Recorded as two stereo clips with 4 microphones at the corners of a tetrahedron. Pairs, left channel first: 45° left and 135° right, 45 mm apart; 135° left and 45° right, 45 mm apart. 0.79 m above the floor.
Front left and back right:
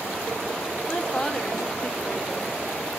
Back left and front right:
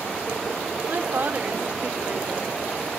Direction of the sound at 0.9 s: 35° right.